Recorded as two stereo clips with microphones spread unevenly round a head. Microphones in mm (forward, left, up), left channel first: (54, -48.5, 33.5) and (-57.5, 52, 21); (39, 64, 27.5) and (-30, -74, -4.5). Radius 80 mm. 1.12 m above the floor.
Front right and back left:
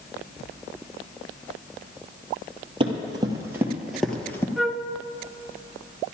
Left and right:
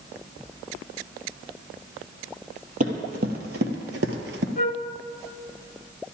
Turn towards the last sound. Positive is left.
turn(degrees=45)